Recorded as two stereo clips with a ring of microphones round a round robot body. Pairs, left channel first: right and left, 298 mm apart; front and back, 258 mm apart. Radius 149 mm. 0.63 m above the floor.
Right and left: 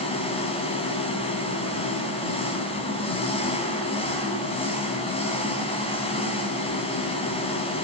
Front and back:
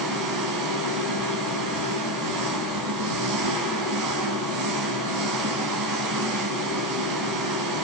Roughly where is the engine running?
Behind.